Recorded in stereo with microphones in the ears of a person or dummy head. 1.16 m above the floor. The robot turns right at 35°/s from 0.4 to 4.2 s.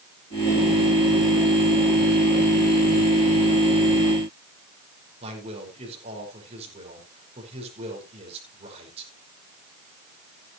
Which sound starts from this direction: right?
A man speaking, at 5.2 s.